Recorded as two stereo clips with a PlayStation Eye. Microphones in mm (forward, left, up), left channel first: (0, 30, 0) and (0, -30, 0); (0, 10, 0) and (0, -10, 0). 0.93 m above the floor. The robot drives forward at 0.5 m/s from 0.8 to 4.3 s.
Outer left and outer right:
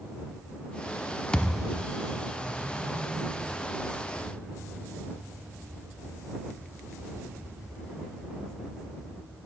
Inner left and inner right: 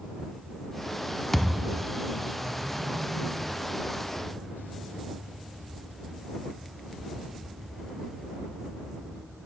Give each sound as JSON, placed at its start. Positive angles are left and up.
{"t": 1.3, "sound": "a thud", "side_deg": 15, "distance_m": 0.8}